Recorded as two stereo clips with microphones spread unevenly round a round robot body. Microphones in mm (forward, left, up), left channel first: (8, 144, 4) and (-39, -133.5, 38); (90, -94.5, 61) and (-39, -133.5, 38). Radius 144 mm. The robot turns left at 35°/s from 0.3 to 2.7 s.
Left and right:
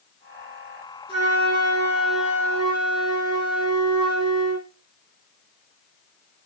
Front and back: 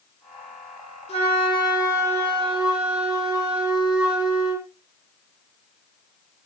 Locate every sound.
1.1 s a flute: 25° right, 9 m; by 4.7 s 85° right, 9 m